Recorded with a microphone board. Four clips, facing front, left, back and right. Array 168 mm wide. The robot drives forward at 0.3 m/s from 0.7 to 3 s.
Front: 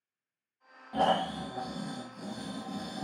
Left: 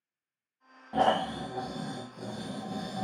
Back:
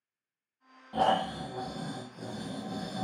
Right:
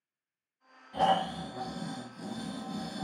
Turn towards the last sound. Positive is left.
turn(degrees=140)